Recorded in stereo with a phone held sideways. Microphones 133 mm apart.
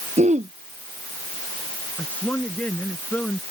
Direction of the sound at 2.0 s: 10° left (ahead or behind).